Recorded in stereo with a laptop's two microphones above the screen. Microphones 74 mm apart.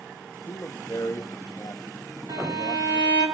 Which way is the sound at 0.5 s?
50° left (ahead or behind).